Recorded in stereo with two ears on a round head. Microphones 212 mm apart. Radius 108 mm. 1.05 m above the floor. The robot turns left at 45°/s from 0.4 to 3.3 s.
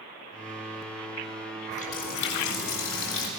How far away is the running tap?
About 4 m.